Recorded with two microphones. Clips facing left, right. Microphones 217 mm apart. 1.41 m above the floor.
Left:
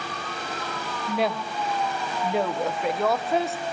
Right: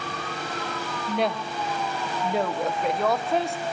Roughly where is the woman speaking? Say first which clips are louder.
Even; centre.